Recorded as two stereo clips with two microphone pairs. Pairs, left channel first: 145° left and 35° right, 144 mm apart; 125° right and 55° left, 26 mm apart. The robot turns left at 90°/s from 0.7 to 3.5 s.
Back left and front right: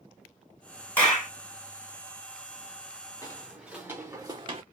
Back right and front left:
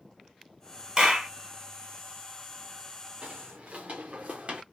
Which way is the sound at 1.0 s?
80° left.